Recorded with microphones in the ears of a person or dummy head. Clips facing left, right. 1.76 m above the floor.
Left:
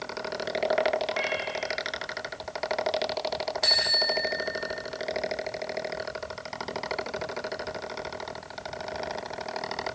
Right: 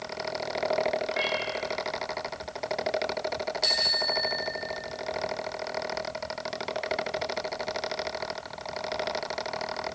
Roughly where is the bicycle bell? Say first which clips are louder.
Left 1 dB; left.